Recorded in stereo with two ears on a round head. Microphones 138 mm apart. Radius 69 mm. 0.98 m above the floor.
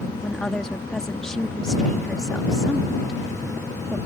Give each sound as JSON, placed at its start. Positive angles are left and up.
{"t": 0.2, "sound": "a woman speaking", "side_deg": 5}